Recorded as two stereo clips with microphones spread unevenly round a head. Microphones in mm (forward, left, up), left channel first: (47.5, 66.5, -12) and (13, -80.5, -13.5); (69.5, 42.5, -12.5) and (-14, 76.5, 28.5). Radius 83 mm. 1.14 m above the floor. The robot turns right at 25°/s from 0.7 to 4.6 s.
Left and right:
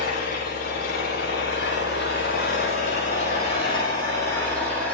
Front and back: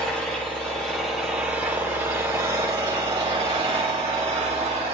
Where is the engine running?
60° left, 9.5 m; by 4.9 s 155° left, 9.5 m.